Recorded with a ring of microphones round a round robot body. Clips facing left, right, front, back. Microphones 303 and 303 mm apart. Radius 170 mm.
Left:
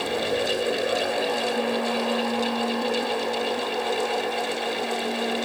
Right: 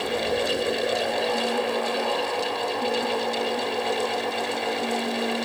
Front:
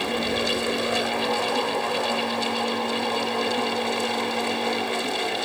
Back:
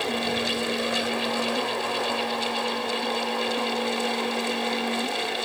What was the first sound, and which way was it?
Only background noise.